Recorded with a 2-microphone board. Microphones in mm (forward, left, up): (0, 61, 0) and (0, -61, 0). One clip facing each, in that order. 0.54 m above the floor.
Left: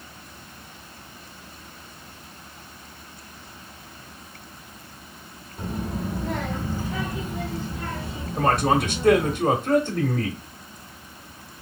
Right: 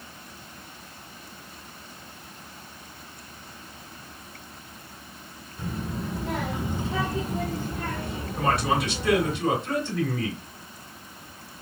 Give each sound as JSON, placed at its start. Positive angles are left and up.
{"t": 5.6, "sound": "a child speaking", "side_deg": 25, "distance_m": 0.8}
{"t": 8.4, "sound": "a man speaking", "side_deg": 50, "distance_m": 1.0}